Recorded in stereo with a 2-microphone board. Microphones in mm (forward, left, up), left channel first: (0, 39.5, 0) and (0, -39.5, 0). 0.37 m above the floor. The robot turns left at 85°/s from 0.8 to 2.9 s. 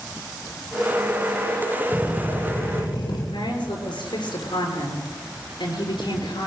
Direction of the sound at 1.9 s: 155° right.